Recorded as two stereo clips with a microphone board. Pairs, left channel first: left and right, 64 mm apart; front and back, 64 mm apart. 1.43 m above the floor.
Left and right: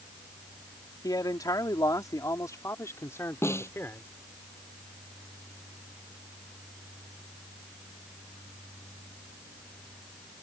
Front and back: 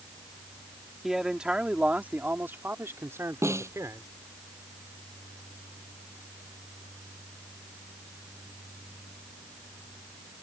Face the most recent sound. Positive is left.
turn(degrees=135)